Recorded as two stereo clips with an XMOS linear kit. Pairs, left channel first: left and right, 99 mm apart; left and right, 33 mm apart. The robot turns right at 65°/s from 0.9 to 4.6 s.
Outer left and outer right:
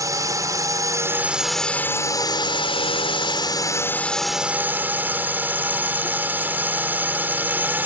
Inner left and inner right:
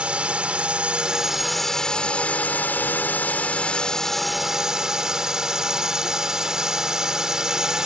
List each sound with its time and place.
0.0 s a drone: 40° right; by 7.9 s 160° right